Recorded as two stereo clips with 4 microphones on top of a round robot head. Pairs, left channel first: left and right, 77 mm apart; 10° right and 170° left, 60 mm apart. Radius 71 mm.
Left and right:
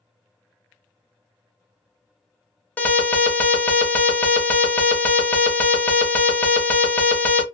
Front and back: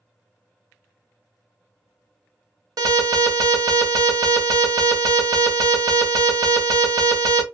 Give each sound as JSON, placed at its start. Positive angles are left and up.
{"t": 2.8, "sound": "an alarm", "azimuth_deg": 160, "distance_m": 0.9}